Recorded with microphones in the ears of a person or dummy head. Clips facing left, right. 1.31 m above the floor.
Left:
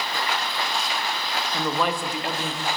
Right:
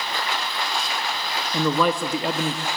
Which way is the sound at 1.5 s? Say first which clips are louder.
Right 5 dB; 85° right.